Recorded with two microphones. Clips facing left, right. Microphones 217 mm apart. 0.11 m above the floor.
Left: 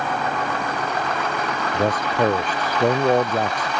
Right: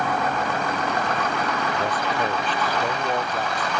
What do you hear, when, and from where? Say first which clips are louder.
1.7 s a man speaking: left 4 dB; 45° left (ahead or behind)